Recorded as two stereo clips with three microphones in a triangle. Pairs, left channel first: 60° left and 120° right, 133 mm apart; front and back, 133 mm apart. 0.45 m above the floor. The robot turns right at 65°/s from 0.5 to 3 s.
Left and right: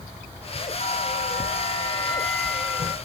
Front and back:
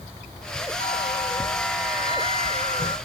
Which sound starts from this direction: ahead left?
A bell, at 0.8 s.